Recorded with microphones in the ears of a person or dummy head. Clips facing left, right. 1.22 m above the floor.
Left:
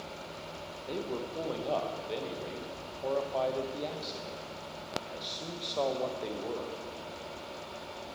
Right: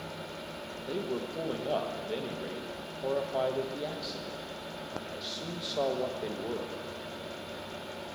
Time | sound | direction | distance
0.9 | a man speaking | 5° right (ahead or behind) | 1.0 m